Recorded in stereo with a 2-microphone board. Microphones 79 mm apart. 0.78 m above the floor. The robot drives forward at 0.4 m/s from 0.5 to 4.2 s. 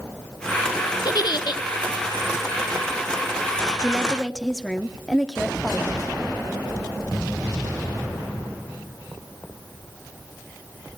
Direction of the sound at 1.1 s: 55° left (ahead or behind).